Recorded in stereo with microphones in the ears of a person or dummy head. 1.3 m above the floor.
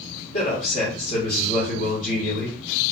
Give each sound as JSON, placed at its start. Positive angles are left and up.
{"t": 0.3, "sound": "a man speaking", "side_deg": 45, "distance_m": 1.6}